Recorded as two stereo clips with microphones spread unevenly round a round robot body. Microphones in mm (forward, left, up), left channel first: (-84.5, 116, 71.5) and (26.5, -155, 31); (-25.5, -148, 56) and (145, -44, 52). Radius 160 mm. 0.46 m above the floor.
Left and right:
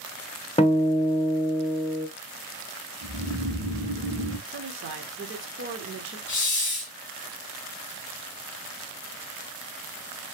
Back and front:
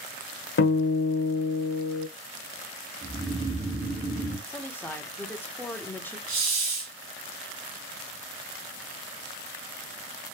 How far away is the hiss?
About 2.5 m.